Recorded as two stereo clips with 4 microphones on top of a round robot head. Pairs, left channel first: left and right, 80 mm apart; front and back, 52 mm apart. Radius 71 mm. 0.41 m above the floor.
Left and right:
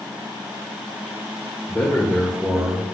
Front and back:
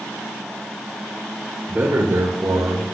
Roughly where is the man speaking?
Behind left.